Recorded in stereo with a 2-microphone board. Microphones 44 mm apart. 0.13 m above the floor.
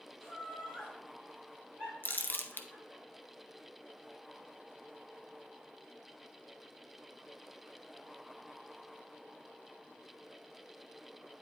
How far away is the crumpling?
About 0.7 m.